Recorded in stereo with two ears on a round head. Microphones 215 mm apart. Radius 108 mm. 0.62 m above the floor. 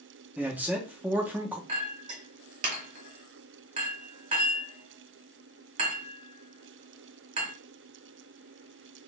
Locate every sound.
0.4 s a man speaking: 5° right (ahead or behind), 0.6 m
1.7 s a clink: 35° right (ahead or behind), 1.2 m